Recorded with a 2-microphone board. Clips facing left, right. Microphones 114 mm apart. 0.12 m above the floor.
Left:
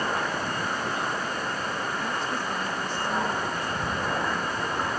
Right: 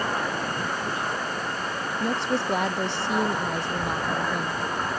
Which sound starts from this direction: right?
A woman speaking, at 2.0 s.